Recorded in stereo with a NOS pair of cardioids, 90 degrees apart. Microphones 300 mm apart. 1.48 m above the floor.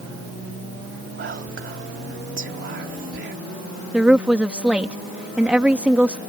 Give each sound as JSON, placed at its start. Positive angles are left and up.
{"t": 1.2, "sound": "whispering", "azimuth_deg": -40}
{"t": 3.9, "sound": "a woman speaking", "azimuth_deg": -5}